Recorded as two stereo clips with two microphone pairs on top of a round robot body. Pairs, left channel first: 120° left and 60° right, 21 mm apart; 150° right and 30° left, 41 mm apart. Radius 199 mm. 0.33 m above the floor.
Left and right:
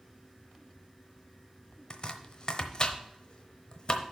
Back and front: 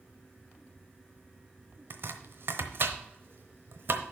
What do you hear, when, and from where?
1.9 s chopping: 70° left, 1.0 m